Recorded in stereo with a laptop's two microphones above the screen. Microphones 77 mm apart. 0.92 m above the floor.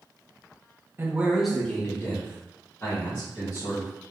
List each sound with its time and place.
1.0 s a man speaking: 35° right (ahead or behind), 0.5 m; by 3.9 s 55° left (ahead or behind), 1.7 m